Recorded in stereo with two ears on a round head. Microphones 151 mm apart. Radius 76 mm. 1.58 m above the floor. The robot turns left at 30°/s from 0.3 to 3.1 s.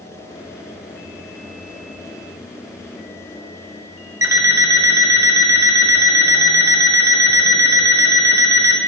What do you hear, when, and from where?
4.2 s an alarm clock: 20° right (ahead or behind), 0.8 m